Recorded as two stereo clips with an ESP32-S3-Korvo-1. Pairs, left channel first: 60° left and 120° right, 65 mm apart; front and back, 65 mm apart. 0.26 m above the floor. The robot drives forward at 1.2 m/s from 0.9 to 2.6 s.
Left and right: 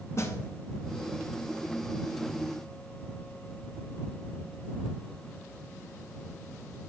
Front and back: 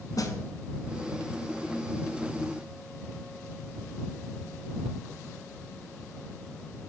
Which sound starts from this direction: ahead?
A snare drum, at 0.2 s.